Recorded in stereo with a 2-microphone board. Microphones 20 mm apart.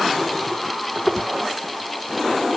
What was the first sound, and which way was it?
Only background noise.